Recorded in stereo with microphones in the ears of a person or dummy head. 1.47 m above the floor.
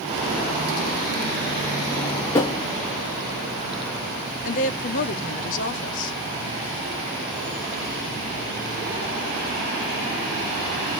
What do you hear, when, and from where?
1.9 s a drawer: 15° left (ahead or behind), 0.6 m
4.5 s a woman speaking: 45° left (ahead or behind), 1.2 m